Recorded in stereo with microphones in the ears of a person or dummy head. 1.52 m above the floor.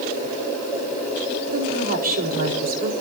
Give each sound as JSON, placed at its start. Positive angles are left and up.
{"t": 1.5, "sound": "a woman speaking", "side_deg": -45, "distance_m": 4.0}